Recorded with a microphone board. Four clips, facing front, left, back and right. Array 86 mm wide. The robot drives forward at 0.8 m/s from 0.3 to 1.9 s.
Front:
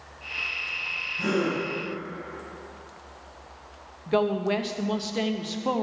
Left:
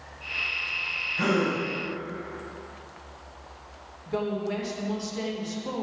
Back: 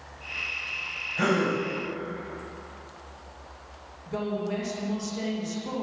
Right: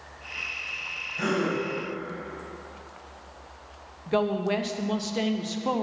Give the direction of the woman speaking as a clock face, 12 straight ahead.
1 o'clock.